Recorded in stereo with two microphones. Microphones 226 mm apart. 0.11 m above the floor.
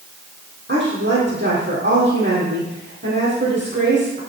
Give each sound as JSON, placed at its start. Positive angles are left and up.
{"t": 0.7, "sound": "a woman speaking", "side_deg": -55, "distance_m": 4.0}